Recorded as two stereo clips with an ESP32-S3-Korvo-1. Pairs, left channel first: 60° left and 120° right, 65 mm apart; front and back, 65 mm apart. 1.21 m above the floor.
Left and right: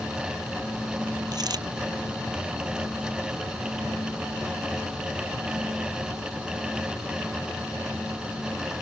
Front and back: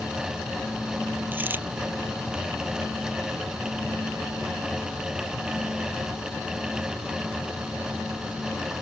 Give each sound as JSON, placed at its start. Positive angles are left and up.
{"t": 1.3, "sound": "a dropped coin", "azimuth_deg": -120}